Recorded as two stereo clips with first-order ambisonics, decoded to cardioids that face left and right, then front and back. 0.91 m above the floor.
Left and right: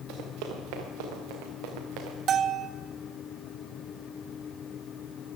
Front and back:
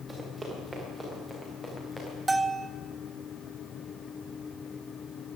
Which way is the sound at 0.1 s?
100° right.